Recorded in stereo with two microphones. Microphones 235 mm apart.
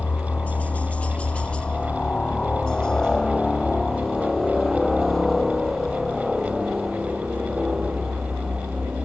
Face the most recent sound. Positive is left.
turn(degrees=-5)  # may be behind; listen again after turning